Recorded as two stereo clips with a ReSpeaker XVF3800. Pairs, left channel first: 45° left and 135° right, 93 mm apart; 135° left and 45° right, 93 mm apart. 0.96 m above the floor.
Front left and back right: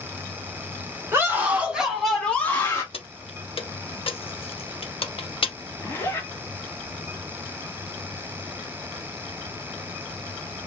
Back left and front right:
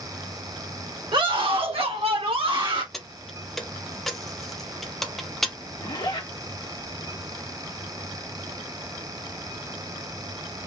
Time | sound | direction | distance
1.1 | a scream | 70° right | 1.4 m
2.9 | keys jangling | 50° left | 0.6 m
5.8 | a zipper | 105° left | 1.1 m